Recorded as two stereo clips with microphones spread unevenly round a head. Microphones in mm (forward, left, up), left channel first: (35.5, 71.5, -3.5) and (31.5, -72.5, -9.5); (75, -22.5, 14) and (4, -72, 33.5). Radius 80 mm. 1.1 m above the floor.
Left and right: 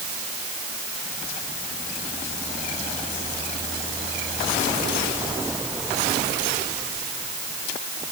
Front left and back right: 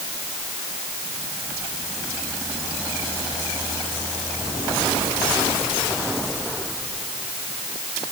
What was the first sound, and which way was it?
Only background noise.